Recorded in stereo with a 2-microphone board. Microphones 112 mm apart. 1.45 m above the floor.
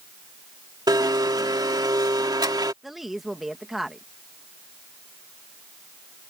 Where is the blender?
40° right (ahead or behind).